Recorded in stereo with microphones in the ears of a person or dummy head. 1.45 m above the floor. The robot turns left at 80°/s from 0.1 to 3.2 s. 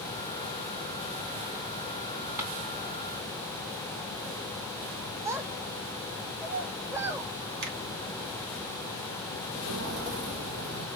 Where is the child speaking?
15° right (ahead or behind), 1.1 m.